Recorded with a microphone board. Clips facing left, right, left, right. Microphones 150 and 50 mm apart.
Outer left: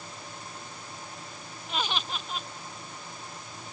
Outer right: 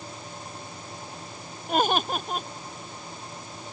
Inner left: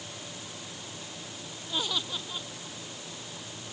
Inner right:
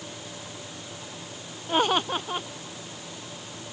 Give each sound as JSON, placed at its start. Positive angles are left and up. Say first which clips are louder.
{"t": 1.7, "sound": "laughter", "louder": "outer right 9 dB, inner right 10 dB", "side_deg": -50}